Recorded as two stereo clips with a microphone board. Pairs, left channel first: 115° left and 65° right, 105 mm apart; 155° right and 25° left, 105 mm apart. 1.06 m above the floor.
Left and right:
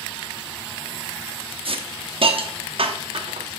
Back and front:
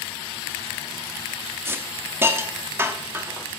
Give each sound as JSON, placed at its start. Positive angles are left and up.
{"t": 1.6, "sound": "a hiss", "azimuth_deg": -45, "distance_m": 1.0}